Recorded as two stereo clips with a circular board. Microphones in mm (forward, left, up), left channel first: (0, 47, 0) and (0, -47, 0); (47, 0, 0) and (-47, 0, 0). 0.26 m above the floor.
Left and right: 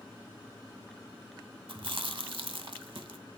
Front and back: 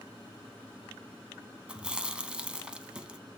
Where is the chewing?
100° right, 0.5 m.